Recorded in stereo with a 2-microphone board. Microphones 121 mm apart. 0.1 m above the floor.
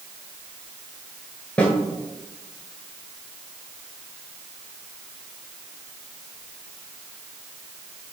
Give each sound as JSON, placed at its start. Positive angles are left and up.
{"t": 1.6, "sound": "a snare drum", "side_deg": 10, "distance_m": 1.1}